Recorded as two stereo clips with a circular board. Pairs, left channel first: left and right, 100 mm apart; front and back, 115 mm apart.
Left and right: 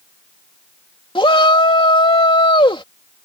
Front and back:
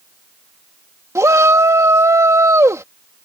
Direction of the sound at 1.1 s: 115° left.